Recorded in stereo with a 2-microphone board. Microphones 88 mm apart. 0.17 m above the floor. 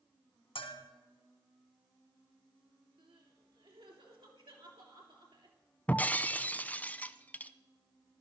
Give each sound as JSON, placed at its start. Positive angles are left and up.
{"t": 0.6, "sound": "a bell", "side_deg": 80, "distance_m": 2.5}
{"t": 3.0, "sound": "crying", "side_deg": -70, "distance_m": 3.0}
{"t": 5.9, "sound": "breaking glass", "side_deg": 20, "distance_m": 0.7}